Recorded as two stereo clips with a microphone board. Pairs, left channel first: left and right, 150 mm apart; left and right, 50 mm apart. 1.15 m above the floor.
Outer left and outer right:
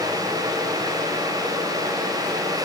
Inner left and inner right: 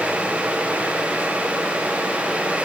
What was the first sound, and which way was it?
Only background noise.